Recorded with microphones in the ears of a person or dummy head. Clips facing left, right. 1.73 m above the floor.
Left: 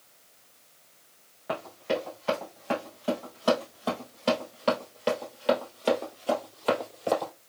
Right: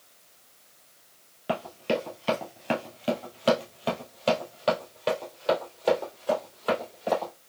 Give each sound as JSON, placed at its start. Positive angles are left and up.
{"t": 1.5, "sound": "running footsteps", "side_deg": -30, "distance_m": 2.0}